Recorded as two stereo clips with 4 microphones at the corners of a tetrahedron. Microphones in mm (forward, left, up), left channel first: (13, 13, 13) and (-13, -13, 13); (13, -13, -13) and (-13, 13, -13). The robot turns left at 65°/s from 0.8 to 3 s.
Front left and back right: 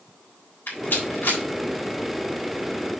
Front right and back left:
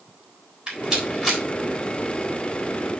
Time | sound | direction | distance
0.7 | a rattle | 70° left | 3.5 m